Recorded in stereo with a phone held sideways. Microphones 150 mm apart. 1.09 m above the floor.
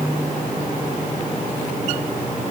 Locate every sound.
Only background noise.